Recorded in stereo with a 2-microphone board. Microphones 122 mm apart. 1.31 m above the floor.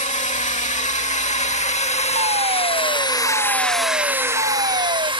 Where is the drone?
80° left; by 5.2 s 40° right (ahead or behind).